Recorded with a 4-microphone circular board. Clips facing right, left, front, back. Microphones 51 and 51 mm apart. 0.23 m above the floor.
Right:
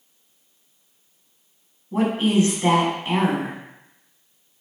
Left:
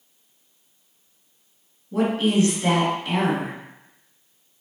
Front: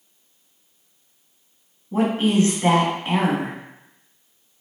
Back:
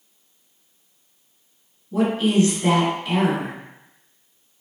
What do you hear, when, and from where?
1.9 s a woman speaking: 40° right, 1.5 m